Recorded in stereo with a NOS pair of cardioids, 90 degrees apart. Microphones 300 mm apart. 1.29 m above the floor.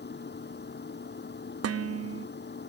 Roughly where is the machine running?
Ahead left.